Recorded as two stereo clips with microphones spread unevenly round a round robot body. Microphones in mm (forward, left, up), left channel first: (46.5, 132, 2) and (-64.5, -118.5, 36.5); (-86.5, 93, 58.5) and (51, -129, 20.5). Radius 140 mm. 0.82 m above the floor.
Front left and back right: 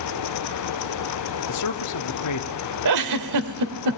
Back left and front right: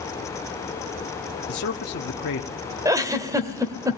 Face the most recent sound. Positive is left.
turn(degrees=-140)